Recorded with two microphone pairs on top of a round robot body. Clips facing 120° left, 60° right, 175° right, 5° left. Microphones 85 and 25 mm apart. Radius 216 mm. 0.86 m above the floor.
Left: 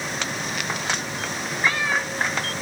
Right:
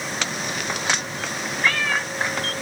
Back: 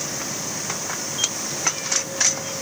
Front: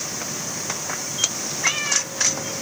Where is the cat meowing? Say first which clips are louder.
Even, front 4 dB; 50° left.